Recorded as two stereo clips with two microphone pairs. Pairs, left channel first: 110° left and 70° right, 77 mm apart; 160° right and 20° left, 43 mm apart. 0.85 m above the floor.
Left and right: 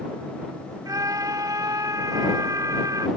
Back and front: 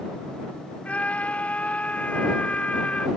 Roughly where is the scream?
Right.